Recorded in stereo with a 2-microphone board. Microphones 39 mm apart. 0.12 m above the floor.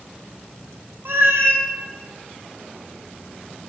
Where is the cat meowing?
70° right (ahead or behind), 0.7 m.